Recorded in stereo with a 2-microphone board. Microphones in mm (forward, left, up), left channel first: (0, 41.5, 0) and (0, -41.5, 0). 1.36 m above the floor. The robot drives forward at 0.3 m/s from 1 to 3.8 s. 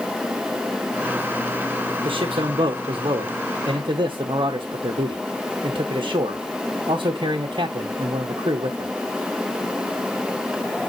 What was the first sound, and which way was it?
A man speaking, 70° right (ahead or behind).